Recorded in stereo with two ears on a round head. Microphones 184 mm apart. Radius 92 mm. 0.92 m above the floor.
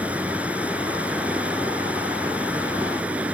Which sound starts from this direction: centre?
Running water, at 0.0 s.